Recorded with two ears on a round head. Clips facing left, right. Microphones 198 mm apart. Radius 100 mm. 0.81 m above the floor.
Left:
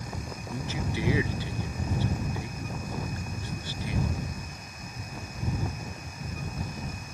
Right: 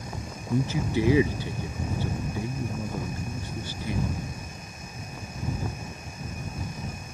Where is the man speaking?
85° right.